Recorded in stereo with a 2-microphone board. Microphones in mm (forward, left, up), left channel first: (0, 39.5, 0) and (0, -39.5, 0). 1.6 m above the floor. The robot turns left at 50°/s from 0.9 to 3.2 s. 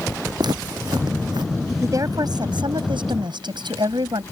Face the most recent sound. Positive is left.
turn(degrees=-105)